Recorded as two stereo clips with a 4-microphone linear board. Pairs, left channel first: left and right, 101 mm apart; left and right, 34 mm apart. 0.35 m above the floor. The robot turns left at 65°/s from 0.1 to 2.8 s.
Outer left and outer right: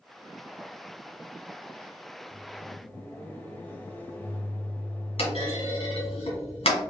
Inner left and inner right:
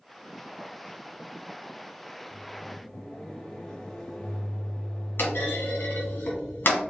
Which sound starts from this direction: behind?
A microwave, at 2.3 s.